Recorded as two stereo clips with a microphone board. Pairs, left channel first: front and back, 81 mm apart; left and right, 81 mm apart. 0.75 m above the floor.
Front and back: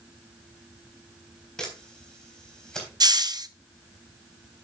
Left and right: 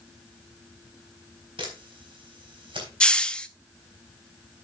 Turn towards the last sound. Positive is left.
turn(degrees=165)